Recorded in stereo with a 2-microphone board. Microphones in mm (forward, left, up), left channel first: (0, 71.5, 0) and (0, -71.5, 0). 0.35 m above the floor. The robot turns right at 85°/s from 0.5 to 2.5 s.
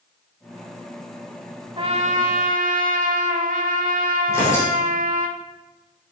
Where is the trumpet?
145° right, 0.8 m; by 5.3 s 80° right, 0.8 m.